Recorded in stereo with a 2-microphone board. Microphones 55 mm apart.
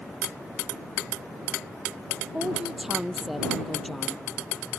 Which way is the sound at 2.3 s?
15° right (ahead or behind).